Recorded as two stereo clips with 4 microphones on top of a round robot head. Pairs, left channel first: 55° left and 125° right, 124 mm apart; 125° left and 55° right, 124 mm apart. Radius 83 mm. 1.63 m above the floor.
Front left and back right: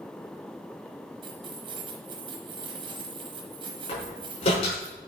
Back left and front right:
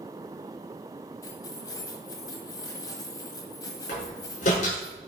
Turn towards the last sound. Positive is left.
turn(degrees=95)